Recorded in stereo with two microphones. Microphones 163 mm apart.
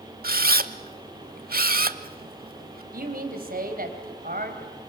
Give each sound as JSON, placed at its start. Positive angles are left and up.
{"t": 0.2, "sound": "a camera shutter", "side_deg": -65, "distance_m": 0.8}
{"t": 2.9, "sound": "a man speaking", "side_deg": -65, "distance_m": 3.5}